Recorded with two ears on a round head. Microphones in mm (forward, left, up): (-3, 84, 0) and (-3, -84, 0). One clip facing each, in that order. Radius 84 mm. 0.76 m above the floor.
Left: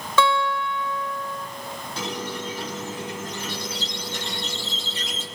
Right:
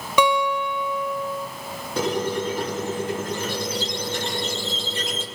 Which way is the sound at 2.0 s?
45° right (ahead or behind).